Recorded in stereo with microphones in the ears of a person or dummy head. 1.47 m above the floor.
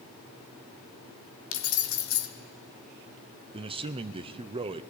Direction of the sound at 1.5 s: 70° left (ahead or behind).